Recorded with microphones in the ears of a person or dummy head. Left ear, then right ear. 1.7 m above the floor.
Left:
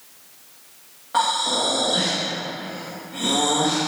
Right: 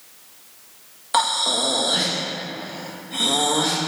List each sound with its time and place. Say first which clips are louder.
1.1 s breathing: right 1 dB; 45° right (ahead or behind), 1.3 m